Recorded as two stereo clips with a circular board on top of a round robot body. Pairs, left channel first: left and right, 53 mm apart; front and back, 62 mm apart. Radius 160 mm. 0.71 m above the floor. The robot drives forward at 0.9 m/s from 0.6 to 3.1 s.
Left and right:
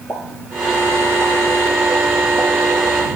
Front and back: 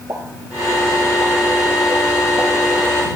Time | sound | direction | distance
0.1 | a pop | 130° left | 5.5 m